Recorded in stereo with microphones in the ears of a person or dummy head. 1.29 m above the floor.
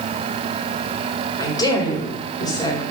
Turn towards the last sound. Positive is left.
turn(degrees=25)  # may be behind; listen again after turning